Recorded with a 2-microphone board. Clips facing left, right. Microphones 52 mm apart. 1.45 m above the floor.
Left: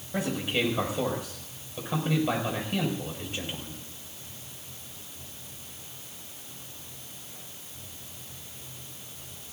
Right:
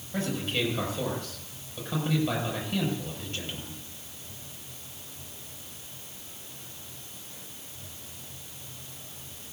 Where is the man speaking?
15° left (ahead or behind), 6 m.